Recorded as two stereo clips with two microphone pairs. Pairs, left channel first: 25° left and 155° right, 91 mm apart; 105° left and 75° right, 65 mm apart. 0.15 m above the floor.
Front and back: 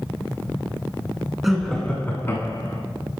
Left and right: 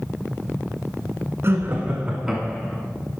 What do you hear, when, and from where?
1.4 s laughter: 75° right, 1.3 m; by 2.8 s 35° left, 1.3 m